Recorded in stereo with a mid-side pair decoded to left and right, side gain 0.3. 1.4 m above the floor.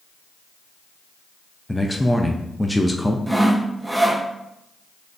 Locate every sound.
1.7 s a man speaking: 10° left, 0.6 m
3.3 s sawing: 15° right, 0.8 m